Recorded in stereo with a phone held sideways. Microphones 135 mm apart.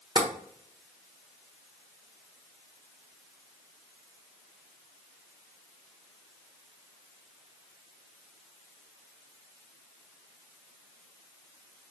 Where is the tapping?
35° right (ahead or behind), 1.0 m.